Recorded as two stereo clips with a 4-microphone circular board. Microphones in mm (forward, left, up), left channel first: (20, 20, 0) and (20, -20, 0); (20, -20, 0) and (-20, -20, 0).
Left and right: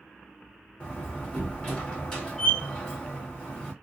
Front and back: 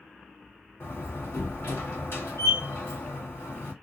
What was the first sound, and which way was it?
A door slam, 20° left.